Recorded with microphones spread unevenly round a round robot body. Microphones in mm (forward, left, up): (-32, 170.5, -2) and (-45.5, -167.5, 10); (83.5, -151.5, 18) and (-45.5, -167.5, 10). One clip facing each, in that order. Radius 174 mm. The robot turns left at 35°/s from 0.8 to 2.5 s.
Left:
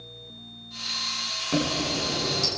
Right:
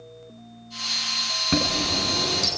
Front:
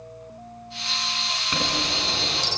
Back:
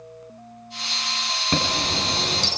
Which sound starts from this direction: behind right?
A chime, at 1.5 s.